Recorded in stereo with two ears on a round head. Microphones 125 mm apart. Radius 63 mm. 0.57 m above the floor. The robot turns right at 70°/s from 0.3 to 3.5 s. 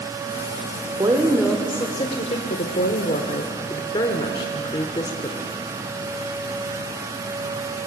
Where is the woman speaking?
35° right, 1.7 m; by 5.5 s 140° left, 1.7 m.